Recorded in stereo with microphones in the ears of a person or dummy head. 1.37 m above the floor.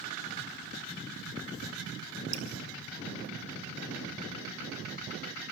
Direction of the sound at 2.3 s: 40° right (ahead or behind).